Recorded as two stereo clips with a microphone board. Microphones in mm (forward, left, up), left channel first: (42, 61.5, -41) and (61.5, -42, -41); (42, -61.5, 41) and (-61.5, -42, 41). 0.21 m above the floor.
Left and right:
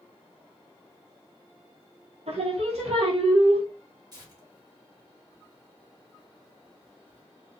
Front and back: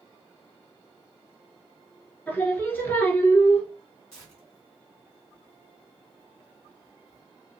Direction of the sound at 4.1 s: 85° right.